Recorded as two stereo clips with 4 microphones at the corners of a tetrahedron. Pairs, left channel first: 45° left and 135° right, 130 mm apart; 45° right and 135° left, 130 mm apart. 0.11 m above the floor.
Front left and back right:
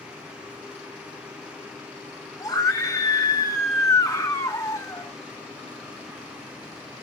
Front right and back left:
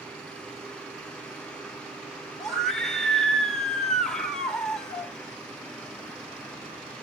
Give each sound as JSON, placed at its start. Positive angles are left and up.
{"t": 2.4, "sound": "a scream", "azimuth_deg": 35, "distance_m": 1.5}